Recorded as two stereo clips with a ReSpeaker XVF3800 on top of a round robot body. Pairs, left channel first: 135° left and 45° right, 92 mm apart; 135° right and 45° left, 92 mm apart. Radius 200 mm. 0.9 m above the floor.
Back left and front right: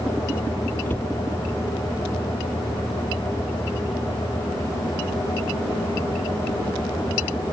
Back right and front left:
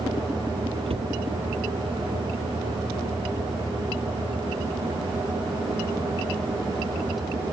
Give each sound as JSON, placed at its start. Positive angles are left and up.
{"t": 0.9, "sound": "a cupboard door", "azimuth_deg": 65}